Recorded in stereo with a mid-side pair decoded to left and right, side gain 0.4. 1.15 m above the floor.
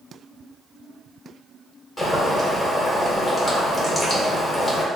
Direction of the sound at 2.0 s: 25° left.